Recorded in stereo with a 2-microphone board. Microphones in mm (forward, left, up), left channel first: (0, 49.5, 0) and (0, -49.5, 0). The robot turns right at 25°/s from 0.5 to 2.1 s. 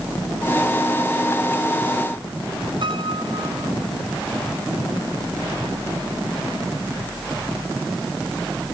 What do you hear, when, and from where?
2.8 s a piano: 60° right (ahead or behind)